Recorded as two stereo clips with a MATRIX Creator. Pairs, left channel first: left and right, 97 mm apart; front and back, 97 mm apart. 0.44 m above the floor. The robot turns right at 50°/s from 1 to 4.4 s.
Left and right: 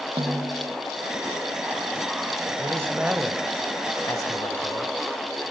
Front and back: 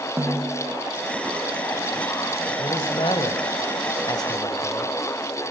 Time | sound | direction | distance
0.2 | a snare drum | 115° right | 2.5 m
2.6 | a man speaking | 40° right | 1.8 m